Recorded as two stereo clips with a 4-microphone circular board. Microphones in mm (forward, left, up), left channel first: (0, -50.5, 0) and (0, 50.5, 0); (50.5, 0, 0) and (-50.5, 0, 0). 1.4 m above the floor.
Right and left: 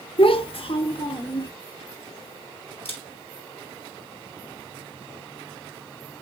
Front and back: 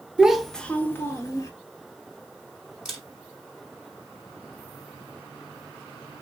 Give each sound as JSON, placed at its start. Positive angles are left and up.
{"t": 0.2, "sound": "a child speaking", "azimuth_deg": -100, "distance_m": 0.6}
{"t": 2.9, "sound": "a camera shutter", "azimuth_deg": -95, "distance_m": 3.5}